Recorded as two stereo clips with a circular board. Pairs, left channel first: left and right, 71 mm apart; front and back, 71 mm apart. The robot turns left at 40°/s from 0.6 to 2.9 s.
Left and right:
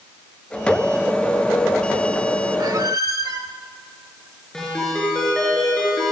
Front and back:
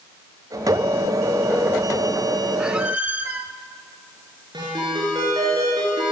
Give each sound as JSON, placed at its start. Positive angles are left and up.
{"t": 2.6, "sound": "a squeak", "azimuth_deg": -100, "distance_m": 0.7}
{"t": 4.5, "sound": "a ringtone", "azimuth_deg": 170, "distance_m": 4.5}